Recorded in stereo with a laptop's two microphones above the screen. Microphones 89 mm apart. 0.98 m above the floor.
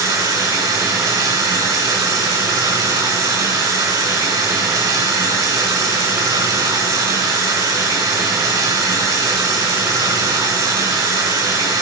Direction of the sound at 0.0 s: 40° right (ahead or behind).